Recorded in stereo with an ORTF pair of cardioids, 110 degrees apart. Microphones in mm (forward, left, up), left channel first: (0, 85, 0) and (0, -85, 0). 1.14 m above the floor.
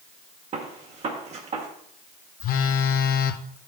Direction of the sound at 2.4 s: 60° left.